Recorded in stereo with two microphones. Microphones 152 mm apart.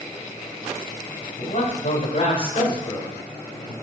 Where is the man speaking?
50° left (ahead or behind), 2.5 m; by 3.7 s 20° left (ahead or behind), 3.5 m.